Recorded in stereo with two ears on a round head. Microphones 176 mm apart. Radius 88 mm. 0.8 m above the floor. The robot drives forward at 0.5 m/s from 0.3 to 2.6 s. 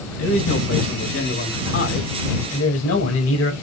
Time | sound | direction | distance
0.2 | a man speaking | 85° left | 6.5 m